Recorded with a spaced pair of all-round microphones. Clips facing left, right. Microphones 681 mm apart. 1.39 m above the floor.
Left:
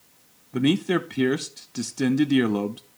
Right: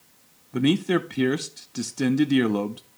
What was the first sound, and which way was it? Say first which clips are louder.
A man speaking: even; centre (ahead or behind).